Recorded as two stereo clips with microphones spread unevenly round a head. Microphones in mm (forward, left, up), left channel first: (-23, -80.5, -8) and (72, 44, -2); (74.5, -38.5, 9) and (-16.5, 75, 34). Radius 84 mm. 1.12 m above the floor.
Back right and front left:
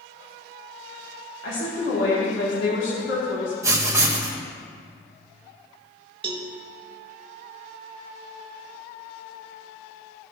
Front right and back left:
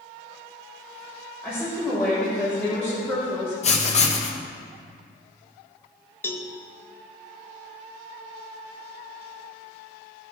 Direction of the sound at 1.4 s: 130° right.